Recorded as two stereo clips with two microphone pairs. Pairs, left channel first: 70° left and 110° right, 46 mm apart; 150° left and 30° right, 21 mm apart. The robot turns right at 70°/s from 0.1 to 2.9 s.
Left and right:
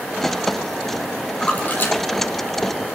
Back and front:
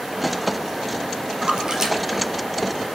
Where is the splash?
Straight ahead, 2.5 m; by 1.9 s 40° left, 2.5 m.